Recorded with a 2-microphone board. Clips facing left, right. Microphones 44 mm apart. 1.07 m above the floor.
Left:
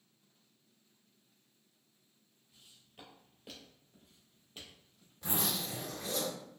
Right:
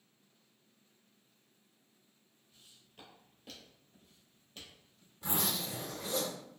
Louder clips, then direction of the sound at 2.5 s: Left 1 dB; 10° left (ahead or behind).